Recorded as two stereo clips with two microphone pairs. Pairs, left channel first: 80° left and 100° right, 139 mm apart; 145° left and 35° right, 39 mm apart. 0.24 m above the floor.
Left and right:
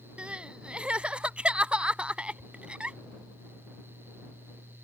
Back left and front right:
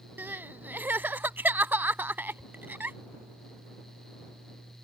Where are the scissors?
No scissors in this recording.